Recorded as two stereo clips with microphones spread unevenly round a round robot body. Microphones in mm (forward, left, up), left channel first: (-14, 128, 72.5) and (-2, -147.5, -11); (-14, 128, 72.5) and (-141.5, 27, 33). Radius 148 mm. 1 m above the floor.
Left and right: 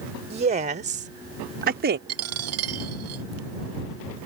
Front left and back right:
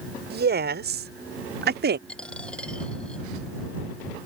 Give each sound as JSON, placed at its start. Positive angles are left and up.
{"t": 0.3, "sound": "a woman speaking", "azimuth_deg": -155}
{"t": 2.1, "sound": "a dropped coin", "azimuth_deg": -45}